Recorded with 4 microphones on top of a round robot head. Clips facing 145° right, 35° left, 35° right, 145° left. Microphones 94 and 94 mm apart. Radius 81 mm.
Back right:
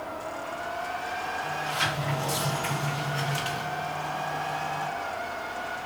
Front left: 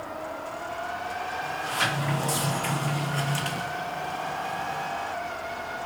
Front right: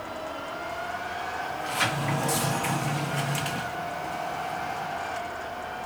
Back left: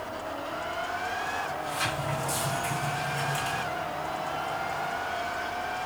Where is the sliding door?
15° right, 0.9 m.